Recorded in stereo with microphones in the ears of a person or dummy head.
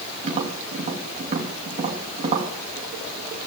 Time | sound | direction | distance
0.2 | tapping | 35° right (ahead or behind) | 2.5 m